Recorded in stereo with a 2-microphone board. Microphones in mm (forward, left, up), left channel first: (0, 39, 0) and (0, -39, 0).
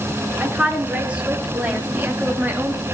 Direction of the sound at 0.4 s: 15° right (ahead or behind).